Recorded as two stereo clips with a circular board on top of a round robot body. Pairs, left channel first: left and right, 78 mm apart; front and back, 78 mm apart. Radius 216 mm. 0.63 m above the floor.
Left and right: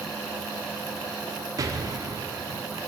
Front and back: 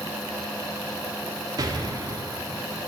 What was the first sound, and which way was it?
An explosion, 135° right.